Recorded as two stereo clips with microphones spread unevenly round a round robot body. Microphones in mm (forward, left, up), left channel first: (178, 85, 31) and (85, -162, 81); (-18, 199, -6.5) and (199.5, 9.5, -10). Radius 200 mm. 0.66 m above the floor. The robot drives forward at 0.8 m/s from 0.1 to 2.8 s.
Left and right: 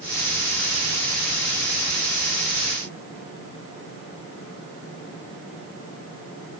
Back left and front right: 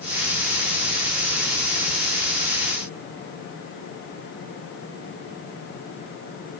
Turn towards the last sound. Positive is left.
No sound to turn to.